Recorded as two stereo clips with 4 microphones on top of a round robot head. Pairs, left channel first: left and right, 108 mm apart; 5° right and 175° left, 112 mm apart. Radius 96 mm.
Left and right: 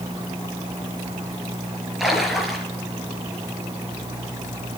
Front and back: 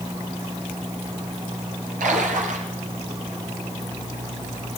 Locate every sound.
2.0 s a splash: straight behind, 5 m